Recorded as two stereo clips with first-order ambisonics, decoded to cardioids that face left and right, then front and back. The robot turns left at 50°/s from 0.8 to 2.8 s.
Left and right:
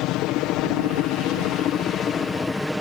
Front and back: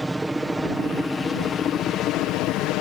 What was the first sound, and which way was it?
A helicopter, 95° left.